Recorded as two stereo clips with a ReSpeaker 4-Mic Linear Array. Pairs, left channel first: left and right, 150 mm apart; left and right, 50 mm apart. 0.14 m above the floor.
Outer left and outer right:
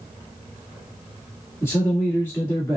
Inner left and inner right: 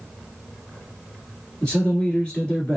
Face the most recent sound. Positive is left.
turn(degrees=20)  # may be behind; listen again after turning